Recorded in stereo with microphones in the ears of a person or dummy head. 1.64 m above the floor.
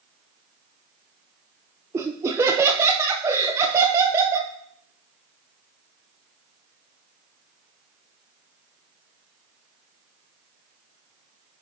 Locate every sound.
1.9 s laughter: 15° right (ahead or behind), 0.8 m